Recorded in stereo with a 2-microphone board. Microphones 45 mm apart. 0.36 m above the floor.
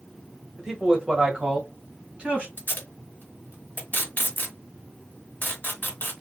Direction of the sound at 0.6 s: 15° right (ahead or behind).